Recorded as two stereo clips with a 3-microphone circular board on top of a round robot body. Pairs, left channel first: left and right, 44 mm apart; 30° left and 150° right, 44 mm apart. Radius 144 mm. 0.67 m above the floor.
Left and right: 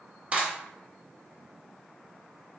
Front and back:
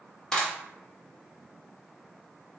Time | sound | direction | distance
0.3 | a clap | 40° right | 1.2 m